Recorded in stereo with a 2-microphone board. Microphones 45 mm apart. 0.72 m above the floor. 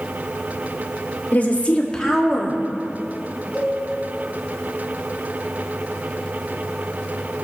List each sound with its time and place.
1.3 s a woman speaking: 40° left (ahead or behind), 2 m; by 2.6 s 15° right (ahead or behind), 2.0 m
3.5 s a cowbell: 35° right (ahead or behind), 5.5 m